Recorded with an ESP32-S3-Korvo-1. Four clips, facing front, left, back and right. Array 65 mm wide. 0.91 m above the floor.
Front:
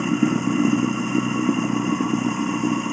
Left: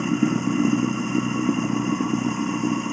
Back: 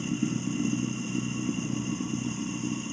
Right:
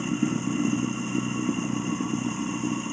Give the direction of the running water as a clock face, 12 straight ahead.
11 o'clock.